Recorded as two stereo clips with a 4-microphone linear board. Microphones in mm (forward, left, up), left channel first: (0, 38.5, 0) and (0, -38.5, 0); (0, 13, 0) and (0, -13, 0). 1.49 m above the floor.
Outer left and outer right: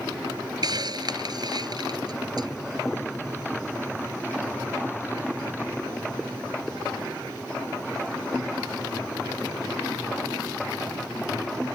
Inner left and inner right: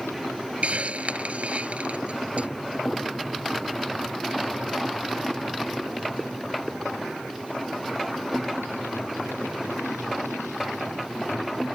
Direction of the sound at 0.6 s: 60° right (ahead or behind).